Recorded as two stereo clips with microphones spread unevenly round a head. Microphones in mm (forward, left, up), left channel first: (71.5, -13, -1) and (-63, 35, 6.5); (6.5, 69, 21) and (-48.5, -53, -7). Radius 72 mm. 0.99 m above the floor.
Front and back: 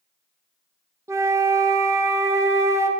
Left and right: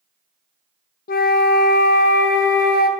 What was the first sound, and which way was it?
A flute, 90° left.